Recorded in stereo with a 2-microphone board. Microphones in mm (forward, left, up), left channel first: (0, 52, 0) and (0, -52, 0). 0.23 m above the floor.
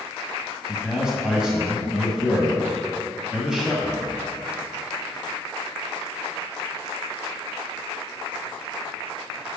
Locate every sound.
0.7 s a man speaking: 5° right (ahead or behind), 1.4 m